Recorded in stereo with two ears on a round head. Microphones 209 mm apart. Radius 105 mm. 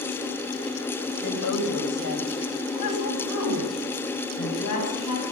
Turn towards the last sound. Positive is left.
turn(degrees=75)  # may be behind; listen again after turning